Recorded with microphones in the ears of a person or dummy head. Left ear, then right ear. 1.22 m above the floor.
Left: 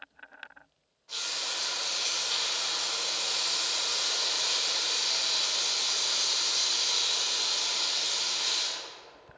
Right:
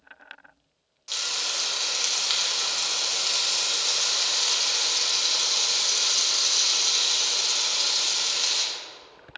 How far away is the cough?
I don't hear a cough.